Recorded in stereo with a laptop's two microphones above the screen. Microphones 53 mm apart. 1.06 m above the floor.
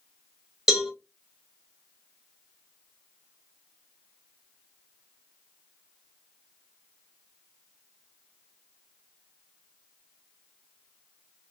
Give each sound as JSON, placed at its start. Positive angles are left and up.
{"t": 0.7, "sound": "a cowbell", "side_deg": -10, "distance_m": 0.6}